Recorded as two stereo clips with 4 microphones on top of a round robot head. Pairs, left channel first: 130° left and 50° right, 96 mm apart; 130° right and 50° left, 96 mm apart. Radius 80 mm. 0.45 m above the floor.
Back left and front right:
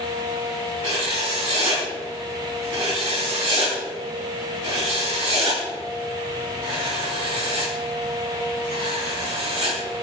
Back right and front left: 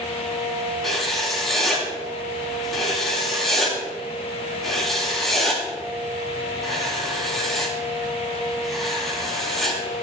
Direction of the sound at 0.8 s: 40° right.